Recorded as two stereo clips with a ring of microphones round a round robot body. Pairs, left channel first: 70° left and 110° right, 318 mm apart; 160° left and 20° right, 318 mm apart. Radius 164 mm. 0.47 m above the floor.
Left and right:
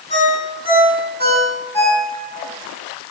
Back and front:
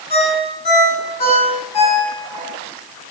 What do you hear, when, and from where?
0.1 s a ringtone: 140° left, 8.5 m